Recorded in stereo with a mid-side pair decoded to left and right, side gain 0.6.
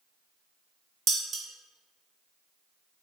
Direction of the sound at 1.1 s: 45° right.